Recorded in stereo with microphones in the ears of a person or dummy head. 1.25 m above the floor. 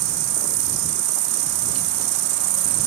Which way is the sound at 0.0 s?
40° right (ahead or behind).